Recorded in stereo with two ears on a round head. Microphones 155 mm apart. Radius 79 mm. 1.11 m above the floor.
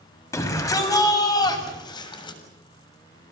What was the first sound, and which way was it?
A shout, 20° left (ahead or behind).